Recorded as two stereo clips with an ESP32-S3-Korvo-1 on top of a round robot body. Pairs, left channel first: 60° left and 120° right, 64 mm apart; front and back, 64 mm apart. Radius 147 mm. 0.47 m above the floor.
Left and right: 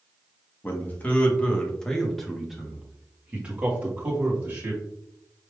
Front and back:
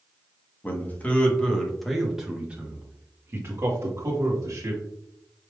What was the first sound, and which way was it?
A man speaking, 30° left.